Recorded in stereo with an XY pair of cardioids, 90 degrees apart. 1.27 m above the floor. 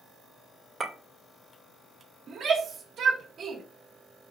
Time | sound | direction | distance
0.8 | a clink | 25° right | 2 m
2.3 | a shout | 65° right | 1.9 m